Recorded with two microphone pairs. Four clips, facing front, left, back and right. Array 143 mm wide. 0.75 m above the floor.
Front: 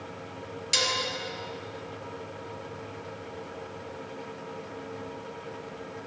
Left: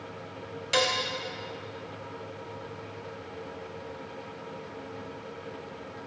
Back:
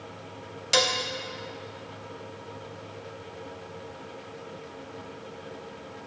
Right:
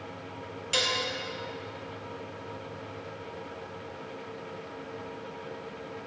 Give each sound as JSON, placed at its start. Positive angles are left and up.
{"t": 0.7, "sound": "dishes clattering", "azimuth_deg": 150, "distance_m": 0.5}